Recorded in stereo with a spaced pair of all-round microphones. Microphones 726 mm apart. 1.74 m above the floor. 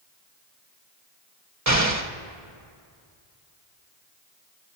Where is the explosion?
25° right (ahead or behind), 1.0 m.